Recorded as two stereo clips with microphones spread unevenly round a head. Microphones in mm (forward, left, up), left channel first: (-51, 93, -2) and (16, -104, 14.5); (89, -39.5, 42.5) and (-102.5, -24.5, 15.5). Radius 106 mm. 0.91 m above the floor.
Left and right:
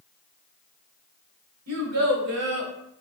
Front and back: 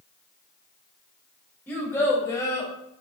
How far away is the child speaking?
About 2 m.